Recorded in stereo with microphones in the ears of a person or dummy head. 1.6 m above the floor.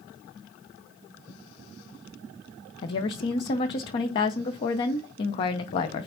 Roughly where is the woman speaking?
Left.